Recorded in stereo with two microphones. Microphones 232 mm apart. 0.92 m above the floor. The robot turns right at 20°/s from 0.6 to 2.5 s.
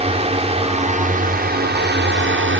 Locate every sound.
0.0 s a drone: 150° right; by 2.6 s 115° right